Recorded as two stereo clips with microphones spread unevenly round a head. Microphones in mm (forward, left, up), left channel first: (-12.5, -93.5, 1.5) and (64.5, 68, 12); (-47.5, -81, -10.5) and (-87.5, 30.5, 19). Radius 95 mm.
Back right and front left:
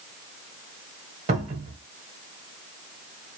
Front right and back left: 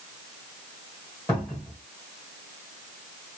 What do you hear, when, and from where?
1.3 s a cupboard door: 10° left, 0.9 m